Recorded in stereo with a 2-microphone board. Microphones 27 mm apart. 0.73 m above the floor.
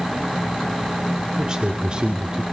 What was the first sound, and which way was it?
A man speaking, 25° right (ahead or behind).